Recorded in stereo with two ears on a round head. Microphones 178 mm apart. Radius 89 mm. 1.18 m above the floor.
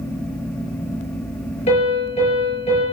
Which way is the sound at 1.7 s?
35° left (ahead or behind).